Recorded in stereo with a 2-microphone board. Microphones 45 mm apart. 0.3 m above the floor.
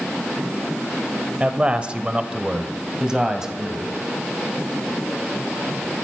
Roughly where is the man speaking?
Right.